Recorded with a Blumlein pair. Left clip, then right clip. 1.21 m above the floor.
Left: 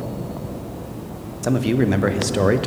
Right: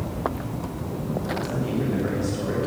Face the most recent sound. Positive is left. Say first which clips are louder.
# left 7 dB
turn(degrees=35)